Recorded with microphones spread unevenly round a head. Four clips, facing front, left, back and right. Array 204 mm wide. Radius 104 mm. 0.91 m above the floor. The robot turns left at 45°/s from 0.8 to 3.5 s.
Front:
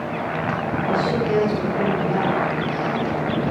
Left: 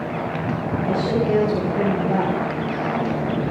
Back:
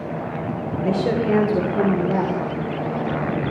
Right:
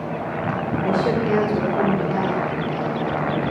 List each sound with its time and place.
0.8 s a woman speaking: 140° right, 3 m; by 2.5 s 145° left, 3 m